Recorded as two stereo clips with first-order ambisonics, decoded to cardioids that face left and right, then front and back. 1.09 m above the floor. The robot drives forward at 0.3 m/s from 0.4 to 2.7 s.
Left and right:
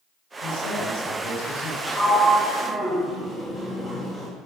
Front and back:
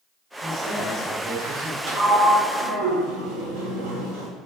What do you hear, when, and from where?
0.4 s a man speaking: 95° left, 6 m; by 1.8 s 100° left, 6 m
1.9 s a sliding door: 170° left, 4 m